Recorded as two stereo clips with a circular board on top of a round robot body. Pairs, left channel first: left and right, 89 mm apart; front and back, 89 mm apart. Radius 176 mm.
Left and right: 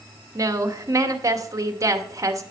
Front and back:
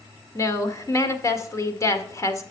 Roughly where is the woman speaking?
Ahead right.